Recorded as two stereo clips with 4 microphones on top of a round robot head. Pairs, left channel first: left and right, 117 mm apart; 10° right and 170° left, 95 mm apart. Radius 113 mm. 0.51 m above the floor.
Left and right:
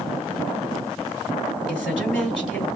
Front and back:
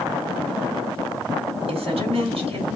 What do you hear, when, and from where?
1.7 s a woman speaking: 175° right, 3 m